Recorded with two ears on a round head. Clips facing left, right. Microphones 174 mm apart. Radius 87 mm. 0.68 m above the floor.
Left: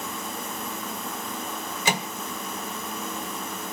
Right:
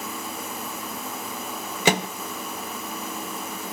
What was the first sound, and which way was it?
A microwave, 50° right (ahead or behind).